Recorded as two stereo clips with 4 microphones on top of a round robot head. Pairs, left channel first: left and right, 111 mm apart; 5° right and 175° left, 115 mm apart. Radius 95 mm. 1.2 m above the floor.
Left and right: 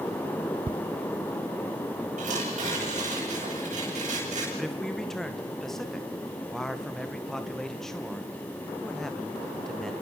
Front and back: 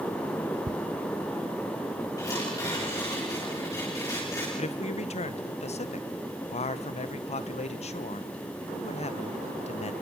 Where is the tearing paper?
70° right, 9.5 m.